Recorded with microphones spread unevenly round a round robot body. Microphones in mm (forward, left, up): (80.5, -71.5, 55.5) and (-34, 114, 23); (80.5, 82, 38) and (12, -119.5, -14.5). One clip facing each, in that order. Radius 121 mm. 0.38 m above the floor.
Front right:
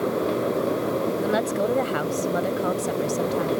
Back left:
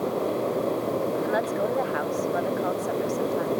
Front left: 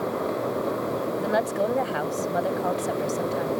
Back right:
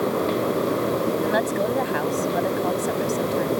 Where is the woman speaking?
25° right.